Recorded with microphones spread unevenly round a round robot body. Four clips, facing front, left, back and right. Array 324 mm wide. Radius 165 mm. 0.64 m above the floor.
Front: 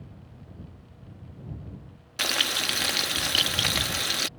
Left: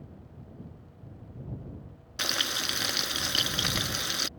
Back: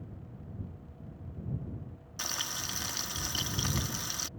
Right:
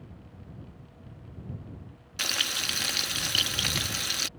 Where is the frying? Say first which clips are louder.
Left 2 dB, front 10 dB; 25° left.